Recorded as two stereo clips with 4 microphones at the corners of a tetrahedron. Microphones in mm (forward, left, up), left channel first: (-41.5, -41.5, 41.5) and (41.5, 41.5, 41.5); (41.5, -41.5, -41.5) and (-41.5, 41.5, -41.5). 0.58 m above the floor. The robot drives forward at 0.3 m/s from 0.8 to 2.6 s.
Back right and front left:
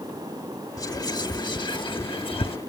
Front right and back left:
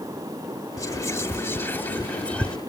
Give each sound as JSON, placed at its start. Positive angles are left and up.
{"t": 0.8, "sound": "whispering", "azimuth_deg": -95}